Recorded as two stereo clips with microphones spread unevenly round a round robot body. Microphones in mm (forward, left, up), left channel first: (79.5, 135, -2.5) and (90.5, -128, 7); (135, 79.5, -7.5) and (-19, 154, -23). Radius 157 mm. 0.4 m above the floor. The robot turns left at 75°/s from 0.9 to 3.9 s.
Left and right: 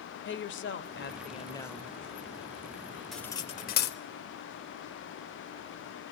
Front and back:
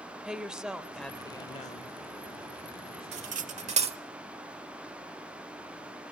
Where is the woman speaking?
75° left, 1.3 m; by 2.0 s 10° right, 1.3 m.